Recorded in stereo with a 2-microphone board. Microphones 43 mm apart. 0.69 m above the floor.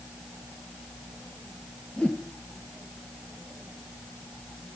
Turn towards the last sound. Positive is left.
turn(degrees=30)  # may be behind; listen again after turning